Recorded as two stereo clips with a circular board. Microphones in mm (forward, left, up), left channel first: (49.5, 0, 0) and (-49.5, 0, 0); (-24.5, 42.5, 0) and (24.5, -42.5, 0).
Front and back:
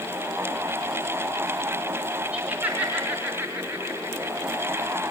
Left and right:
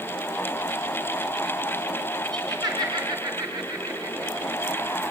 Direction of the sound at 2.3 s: 105° right.